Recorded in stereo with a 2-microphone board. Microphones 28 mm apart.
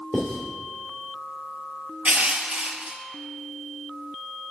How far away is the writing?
About 2.5 m.